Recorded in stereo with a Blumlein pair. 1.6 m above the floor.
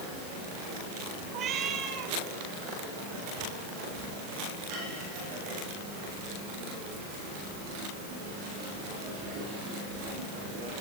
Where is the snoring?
No snoring in this recording.